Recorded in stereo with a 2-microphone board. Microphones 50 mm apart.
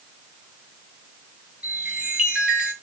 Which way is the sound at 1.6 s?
20° right (ahead or behind).